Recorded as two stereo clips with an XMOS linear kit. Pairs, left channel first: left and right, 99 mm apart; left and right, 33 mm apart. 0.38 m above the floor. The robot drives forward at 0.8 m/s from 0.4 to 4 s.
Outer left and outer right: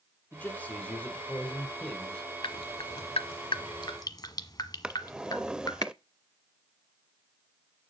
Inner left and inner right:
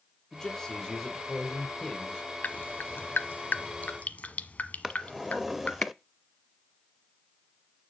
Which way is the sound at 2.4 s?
60° left (ahead or behind).